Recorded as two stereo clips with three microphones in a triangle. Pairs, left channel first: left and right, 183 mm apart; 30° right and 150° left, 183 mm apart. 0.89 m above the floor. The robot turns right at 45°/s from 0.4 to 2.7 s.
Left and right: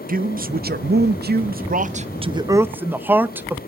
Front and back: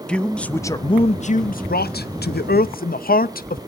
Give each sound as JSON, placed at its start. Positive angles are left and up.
{"t": 0.1, "sound": "a man speaking", "azimuth_deg": -115, "distance_m": 0.6}